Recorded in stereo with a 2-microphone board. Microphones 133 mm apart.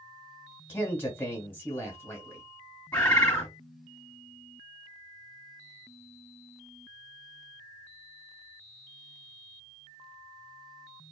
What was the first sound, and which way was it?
A man speaking, 15° left (ahead or behind).